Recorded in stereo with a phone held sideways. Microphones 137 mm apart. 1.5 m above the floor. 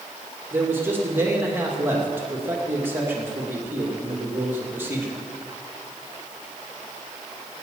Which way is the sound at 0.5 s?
15° right (ahead or behind).